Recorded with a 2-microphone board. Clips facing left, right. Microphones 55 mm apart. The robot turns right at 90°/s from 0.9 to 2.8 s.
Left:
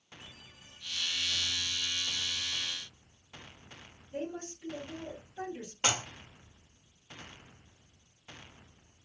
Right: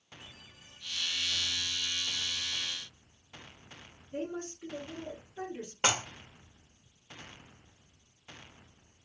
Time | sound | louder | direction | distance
4.1 | a woman speaking | right 1 dB | 25° right (ahead or behind) | 1.9 m
5.8 | dishes clattering | right 2 dB | 30° right (ahead or behind) | 0.7 m